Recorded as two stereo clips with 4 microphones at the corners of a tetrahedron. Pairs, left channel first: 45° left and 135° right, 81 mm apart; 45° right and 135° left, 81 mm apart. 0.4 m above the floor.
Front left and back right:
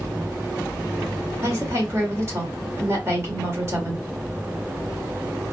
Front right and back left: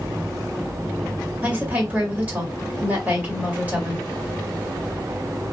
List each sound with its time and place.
1.4 s a woman speaking: 165° right, 1.7 m